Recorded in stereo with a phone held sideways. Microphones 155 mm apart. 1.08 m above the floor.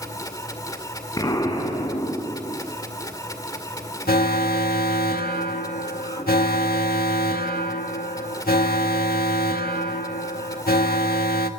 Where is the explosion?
25° left (ahead or behind), 4 m.